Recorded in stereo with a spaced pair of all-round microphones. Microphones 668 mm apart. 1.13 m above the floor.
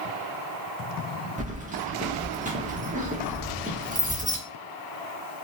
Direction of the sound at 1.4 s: 15° right (ahead or behind).